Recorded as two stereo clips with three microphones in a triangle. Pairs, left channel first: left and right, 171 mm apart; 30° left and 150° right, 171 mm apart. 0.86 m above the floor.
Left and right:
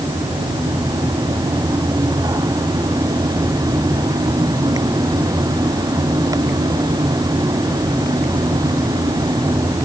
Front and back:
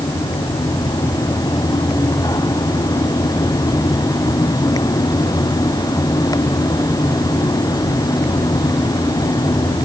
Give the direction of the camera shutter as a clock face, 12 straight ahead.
No camera shutter in this recording.